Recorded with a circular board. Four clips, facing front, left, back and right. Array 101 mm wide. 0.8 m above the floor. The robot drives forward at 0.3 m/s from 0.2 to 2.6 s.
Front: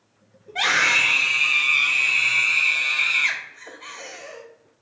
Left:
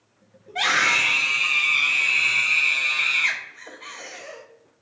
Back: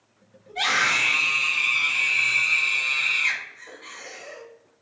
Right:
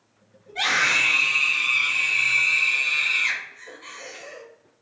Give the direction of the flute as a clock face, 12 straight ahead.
No flute in this recording.